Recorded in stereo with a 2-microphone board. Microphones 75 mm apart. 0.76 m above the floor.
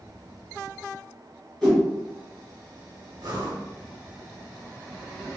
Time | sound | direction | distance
1.6 | a whoosh | 10° left (ahead or behind) | 1.4 m
3.2 | breathing | 60° right (ahead or behind) | 0.7 m